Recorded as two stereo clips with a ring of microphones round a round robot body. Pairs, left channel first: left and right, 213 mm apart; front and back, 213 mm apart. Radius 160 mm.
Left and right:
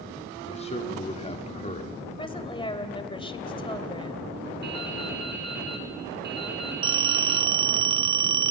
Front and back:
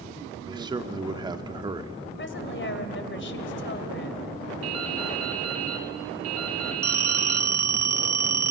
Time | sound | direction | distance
0.5 | a man speaking | 125° left | 1.2 m
2.2 | a woman speaking | 25° left | 2.5 m
4.6 | dripping | 150° right | 1.8 m
6.8 | a phone ringing | 120° right | 0.7 m